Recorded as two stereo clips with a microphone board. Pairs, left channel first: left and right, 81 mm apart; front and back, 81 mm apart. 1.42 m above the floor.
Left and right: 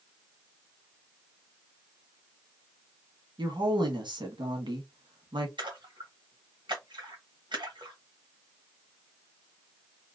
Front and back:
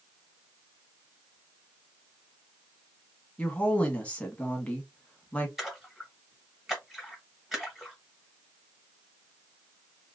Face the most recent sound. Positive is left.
turn(degrees=-90)